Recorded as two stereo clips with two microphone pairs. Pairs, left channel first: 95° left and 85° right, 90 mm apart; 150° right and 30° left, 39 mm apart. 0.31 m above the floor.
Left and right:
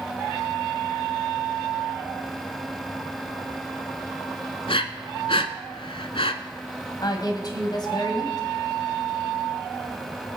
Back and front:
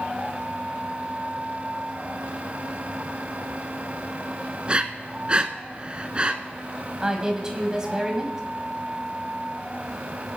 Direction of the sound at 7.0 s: 95° left.